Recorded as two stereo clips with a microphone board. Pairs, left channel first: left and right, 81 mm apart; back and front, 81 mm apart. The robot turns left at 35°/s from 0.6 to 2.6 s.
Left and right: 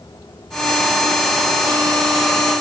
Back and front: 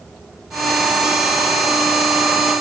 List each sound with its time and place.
Only background noise.